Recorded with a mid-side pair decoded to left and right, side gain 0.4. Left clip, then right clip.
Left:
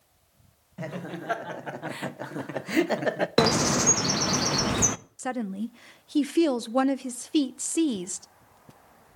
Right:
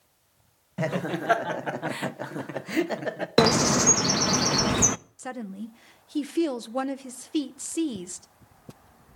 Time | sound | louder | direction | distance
0.8 | laughter | right 8 dB | 60° right | 1.0 m
3.4 | a bird | right 3 dB | 15° right | 0.6 m
5.2 | a woman speaking | left 5 dB | 35° left | 0.7 m